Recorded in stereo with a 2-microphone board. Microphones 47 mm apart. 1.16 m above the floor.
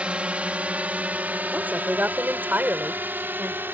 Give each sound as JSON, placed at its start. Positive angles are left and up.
{"t": 0.0, "sound": "a drone", "side_deg": -25}
{"t": 1.5, "sound": "a woman speaking", "side_deg": -40}